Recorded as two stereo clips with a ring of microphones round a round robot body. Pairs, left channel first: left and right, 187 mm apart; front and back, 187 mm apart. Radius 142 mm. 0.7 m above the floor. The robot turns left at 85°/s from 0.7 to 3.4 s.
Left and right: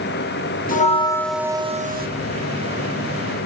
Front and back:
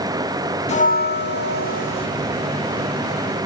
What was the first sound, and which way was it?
A bell, 50° left.